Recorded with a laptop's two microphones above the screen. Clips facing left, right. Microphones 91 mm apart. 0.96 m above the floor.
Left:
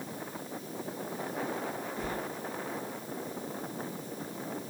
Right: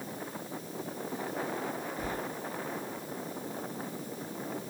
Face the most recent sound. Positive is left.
turn(degrees=-10)  # may be behind; listen again after turning